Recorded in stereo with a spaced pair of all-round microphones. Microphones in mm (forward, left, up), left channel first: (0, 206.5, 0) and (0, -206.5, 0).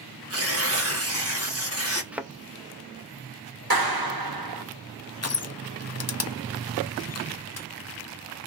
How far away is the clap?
About 1.1 m.